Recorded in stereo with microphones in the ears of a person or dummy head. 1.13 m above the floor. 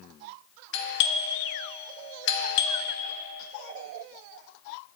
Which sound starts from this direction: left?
A doorbell, at 0.7 s.